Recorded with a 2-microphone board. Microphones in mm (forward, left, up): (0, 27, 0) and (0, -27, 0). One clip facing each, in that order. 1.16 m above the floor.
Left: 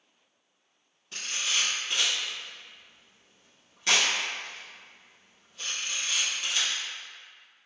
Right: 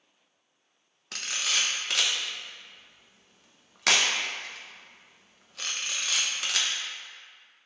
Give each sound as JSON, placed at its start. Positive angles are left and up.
{"t": 1.1, "sound": "a camera shutter", "side_deg": -85, "distance_m": 0.5}